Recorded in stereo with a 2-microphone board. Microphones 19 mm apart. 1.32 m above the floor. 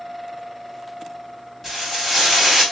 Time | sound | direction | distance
1.6 | frying | 5° left (ahead or behind) | 2.0 m